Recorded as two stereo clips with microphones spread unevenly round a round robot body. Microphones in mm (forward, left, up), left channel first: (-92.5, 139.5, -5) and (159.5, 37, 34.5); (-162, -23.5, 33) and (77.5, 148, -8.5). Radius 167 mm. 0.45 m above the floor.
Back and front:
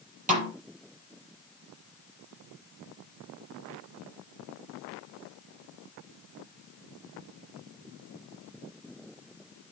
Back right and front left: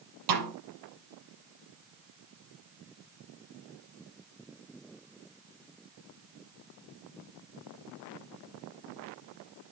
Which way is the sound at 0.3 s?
40° left.